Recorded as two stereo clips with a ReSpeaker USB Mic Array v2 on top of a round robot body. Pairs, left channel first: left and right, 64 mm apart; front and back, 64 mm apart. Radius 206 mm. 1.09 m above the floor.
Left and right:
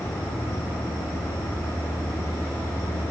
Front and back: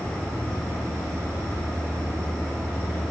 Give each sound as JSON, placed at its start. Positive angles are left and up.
{"t": 0.0, "sound": "an insect", "azimuth_deg": 35, "distance_m": 4.5}